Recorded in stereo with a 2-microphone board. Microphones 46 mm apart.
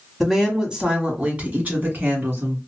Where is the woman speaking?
5° right (ahead or behind), 1.2 m; by 2.6 s 50° right (ahead or behind), 1.9 m.